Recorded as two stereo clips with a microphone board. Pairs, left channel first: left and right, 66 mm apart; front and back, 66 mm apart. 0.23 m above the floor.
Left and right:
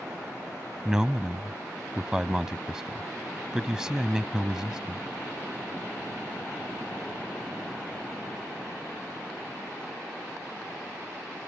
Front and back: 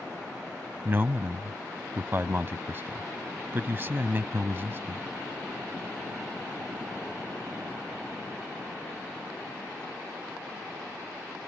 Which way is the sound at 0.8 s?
165° right.